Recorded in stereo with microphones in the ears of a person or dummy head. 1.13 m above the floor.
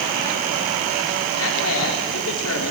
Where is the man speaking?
80° left, 3.5 m.